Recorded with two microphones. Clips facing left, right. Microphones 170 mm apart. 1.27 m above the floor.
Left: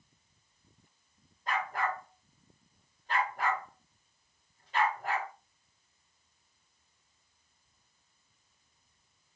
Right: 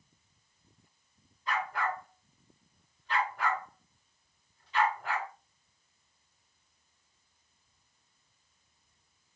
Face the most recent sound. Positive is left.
turn(degrees=50)  # may be behind; listen again after turning